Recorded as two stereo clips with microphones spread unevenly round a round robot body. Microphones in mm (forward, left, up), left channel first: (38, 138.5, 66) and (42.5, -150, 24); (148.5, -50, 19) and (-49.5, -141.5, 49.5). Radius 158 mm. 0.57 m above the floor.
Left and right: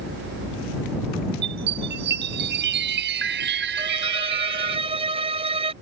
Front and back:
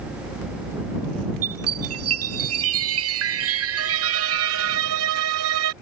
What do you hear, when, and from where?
1.4 s a chime: 150° right
3.8 s a violin: 165° right